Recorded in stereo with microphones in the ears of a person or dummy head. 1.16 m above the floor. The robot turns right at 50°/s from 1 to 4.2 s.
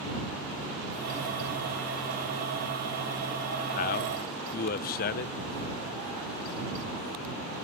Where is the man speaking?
40° left (ahead or behind); by 5.3 s 50° left (ahead or behind).